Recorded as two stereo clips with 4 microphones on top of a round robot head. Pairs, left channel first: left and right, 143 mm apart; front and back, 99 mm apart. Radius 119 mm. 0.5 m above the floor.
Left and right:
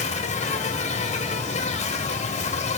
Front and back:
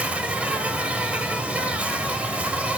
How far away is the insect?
About 2.5 m.